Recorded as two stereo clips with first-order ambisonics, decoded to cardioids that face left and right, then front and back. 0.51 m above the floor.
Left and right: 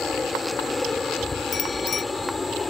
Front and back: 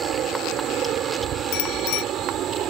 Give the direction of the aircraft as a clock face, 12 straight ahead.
7 o'clock.